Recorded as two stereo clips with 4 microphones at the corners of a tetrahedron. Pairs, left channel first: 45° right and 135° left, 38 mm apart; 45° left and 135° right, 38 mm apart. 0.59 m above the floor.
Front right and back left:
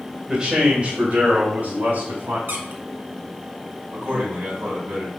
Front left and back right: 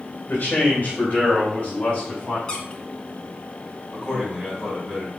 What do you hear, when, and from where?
0.3 s a man speaking: 75° left, 1.8 m; by 2.4 s 110° left, 4.5 m
2.5 s a squeak: 105° left, 1.2 m
3.9 s a man speaking: 135° left, 4 m